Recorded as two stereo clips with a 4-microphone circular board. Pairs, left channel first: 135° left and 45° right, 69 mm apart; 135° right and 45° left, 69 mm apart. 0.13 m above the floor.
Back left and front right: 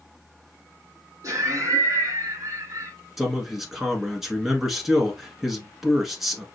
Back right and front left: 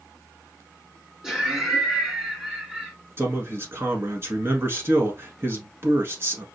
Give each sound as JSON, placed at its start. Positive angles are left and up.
{"t": 1.2, "sound": "laughter", "azimuth_deg": -30, "distance_m": 2.5}
{"t": 3.2, "sound": "a man speaking", "azimuth_deg": 40, "distance_m": 1.3}